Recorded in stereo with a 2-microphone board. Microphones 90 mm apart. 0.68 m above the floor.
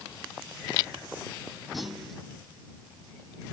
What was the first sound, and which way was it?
A clunk, centre (ahead or behind).